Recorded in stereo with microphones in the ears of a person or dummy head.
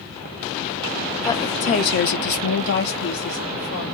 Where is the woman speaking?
20° left (ahead or behind), 0.6 m; by 3.8 s 40° left (ahead or behind), 1.2 m.